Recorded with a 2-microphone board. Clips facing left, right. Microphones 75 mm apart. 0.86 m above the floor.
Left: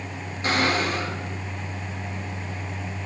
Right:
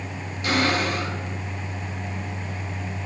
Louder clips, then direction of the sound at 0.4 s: Even; 40° left (ahead or behind).